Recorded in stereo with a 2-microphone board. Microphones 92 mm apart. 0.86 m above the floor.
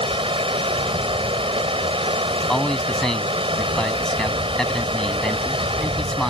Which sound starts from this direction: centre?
A man speaking, at 2.3 s.